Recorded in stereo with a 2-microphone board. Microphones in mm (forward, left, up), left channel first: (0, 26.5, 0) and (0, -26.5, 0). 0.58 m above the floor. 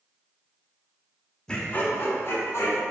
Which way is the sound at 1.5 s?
15° left (ahead or behind).